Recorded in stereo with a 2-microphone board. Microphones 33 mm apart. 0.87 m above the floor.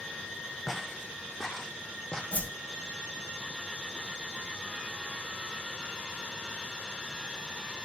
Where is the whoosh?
45° left (ahead or behind), 1.4 m.